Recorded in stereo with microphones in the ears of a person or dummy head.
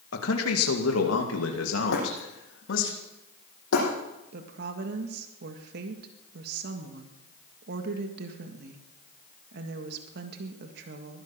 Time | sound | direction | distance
0.1 | a man speaking | 70° left (ahead or behind) | 2 m
1.9 | breaking glass | 80° left | 7 m
4.3 | a woman speaking | 60° right (ahead or behind) | 1.6 m